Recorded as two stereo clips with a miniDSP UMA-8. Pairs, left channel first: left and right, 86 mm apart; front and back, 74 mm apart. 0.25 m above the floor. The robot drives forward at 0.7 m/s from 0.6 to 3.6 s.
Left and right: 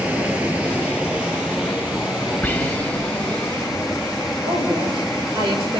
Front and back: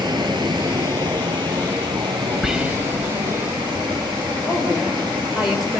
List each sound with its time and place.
0.0 s running water: 165° right, 1.5 m; by 5.8 s 175° right, 3.5 m
2.4 s whispering: 105° left, 1.1 m; by 3.1 s 145° left, 1.3 m
4.4 s a woman speaking: 95° right, 6 m